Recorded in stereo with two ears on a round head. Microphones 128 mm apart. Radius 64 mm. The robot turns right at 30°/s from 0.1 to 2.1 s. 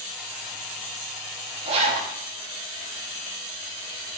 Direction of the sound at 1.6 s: 35° right (ahead or behind).